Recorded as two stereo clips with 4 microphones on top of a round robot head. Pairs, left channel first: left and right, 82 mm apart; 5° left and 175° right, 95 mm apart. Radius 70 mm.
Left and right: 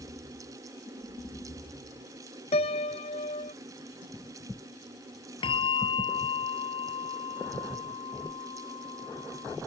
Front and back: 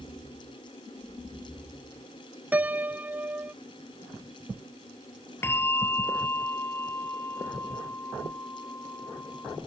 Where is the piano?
110° left.